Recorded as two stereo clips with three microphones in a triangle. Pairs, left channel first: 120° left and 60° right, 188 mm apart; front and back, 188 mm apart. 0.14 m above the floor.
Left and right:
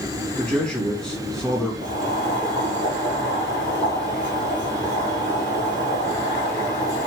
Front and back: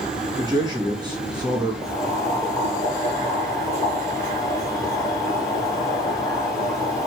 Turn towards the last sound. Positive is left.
turn(degrees=65)